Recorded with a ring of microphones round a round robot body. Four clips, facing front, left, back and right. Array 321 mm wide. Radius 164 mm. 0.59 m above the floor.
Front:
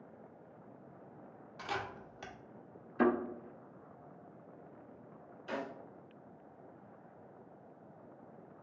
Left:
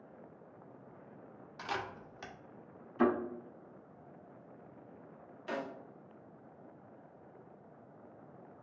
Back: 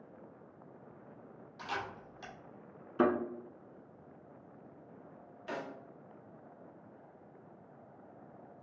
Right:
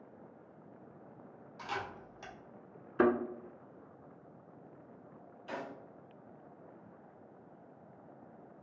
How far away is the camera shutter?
About 1.0 m.